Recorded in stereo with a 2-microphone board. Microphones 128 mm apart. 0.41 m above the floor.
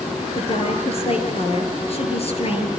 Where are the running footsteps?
I don't hear running footsteps.